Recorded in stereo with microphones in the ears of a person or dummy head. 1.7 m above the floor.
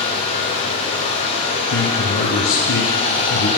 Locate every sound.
0.0 s running water: 30° left (ahead or behind), 1.2 m
1.7 s a man speaking: 75° left (ahead or behind), 1.0 m